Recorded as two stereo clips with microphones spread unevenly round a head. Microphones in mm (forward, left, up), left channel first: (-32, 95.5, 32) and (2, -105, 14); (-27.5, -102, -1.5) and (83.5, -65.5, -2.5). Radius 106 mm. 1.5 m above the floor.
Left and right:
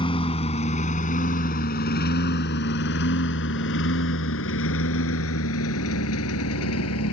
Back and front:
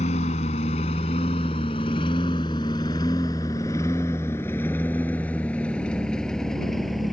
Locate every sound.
0.0 s a lawn mower: 160° left; by 7.1 s 110° left